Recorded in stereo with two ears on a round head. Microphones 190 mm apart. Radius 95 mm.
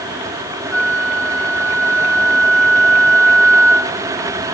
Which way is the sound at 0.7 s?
5° left (ahead or behind).